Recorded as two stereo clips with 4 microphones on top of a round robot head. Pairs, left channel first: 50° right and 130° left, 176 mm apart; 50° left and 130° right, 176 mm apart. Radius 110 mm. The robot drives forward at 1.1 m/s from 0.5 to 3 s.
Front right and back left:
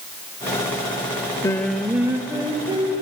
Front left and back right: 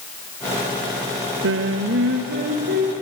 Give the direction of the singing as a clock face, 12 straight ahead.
4 o'clock.